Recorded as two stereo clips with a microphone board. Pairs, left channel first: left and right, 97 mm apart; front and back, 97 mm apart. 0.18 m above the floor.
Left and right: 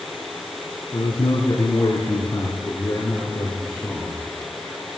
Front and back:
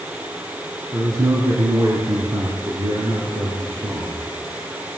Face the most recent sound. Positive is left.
turn(degrees=155)